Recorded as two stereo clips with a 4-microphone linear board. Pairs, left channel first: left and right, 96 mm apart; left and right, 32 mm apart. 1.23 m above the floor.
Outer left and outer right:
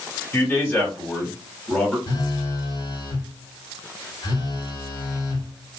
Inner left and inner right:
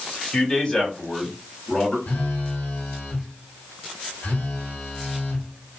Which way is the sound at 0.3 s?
20° left (ahead or behind).